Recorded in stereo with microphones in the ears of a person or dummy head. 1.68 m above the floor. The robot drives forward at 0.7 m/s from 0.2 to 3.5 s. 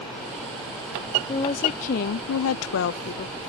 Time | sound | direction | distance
1.3 | a woman speaking | 30° left (ahead or behind) | ?